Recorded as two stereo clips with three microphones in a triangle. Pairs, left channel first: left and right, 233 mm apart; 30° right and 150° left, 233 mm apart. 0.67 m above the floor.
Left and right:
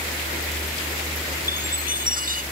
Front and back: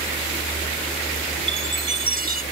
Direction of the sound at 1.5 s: 40° right.